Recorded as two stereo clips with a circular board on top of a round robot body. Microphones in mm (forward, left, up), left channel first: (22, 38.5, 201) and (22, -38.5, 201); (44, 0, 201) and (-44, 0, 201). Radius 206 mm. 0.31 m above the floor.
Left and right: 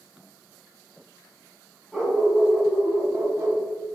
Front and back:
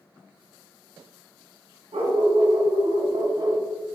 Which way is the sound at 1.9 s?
175° right.